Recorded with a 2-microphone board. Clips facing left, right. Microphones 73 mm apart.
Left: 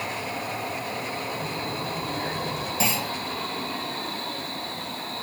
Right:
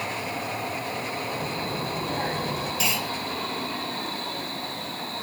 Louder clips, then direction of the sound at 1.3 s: Right 1 dB; 50° right (ahead or behind).